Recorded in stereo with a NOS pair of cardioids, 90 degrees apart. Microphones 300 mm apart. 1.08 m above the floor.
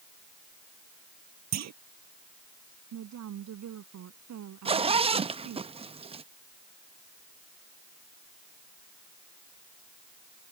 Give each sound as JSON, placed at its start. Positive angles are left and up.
{"t": 1.5, "sound": "a clunk", "azimuth_deg": -60}
{"t": 2.9, "sound": "a woman speaking", "azimuth_deg": -65}
{"t": 4.7, "sound": "a zipper", "azimuth_deg": -20}